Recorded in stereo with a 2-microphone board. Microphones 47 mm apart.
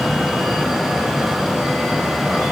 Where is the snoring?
I don't hear snoring.